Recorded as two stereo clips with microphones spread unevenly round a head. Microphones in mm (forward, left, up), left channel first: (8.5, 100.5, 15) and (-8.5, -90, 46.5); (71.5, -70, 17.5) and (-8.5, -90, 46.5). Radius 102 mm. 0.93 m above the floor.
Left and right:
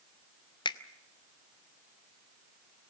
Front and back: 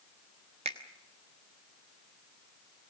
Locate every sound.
0.7 s a finger snap: 150° left, 1.0 m